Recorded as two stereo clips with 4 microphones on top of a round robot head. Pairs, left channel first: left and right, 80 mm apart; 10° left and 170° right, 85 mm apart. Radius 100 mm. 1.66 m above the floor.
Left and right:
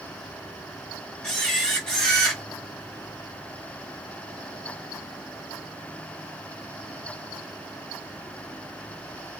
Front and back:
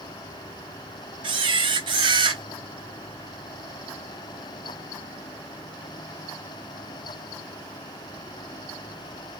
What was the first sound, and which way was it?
A camera shutter, 175° left.